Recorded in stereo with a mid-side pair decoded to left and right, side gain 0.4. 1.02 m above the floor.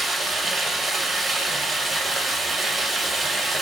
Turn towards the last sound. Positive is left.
turn(degrees=-45)